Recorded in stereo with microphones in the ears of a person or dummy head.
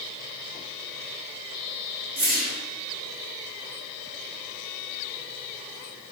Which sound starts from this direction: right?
A whoosh, at 2.2 s.